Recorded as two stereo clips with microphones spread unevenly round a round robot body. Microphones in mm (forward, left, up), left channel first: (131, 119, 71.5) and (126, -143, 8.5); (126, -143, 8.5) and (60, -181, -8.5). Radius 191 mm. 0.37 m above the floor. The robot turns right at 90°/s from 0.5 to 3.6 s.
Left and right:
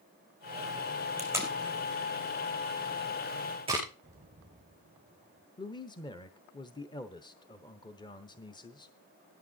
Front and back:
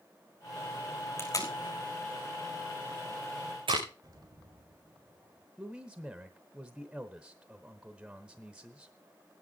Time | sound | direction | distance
1.2 | tape being pulled | 25° right | 5 m
4.0 | an explosion | 140° right | 2.5 m
5.6 | a man speaking | 175° left | 0.8 m